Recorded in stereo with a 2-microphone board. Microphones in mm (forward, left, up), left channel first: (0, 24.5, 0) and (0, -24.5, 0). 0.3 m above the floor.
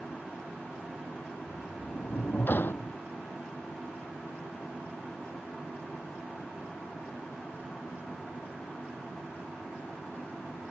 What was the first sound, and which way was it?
A sliding door, 50° left (ahead or behind).